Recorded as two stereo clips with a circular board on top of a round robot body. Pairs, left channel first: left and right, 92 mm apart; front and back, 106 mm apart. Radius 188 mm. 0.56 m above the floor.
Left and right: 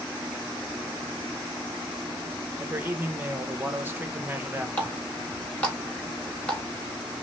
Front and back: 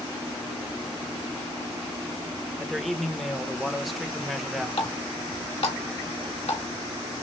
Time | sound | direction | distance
2.6 | a man speaking | 90° right | 1.0 m
4.8 | a running tap | 15° left | 2 m